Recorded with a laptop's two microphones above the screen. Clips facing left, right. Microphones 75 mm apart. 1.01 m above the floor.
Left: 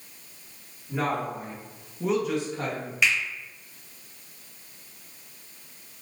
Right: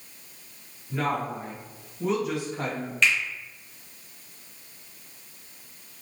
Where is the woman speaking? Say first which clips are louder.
Even; 15° left (ahead or behind), 1.7 m; by 2.9 s 15° right (ahead or behind), 1.1 m.